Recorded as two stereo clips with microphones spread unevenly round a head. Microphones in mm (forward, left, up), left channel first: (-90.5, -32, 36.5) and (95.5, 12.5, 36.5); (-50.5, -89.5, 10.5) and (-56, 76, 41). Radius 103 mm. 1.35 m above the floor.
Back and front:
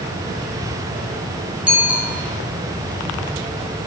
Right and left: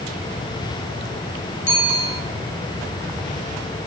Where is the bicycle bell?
70° right, 6.5 m.